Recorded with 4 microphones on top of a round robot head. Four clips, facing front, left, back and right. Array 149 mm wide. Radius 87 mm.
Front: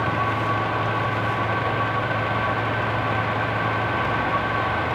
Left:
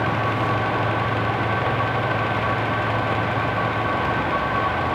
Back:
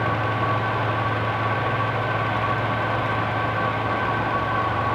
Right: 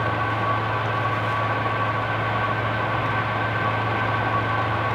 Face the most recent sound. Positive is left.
No sound to turn to.